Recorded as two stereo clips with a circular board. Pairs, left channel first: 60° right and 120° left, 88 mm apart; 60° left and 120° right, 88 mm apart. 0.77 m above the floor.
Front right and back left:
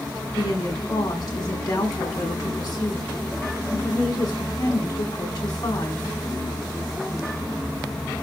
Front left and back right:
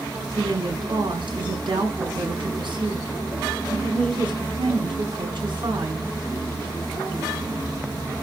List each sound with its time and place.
0.3 s a woman speaking: 100° right, 5.5 m